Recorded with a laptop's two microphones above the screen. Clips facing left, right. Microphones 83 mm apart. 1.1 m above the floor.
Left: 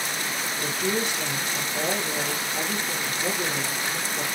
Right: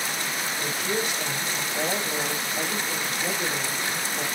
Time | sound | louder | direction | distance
0.6 | a woman speaking | left 2 dB | 45° left (ahead or behind) | 1.9 m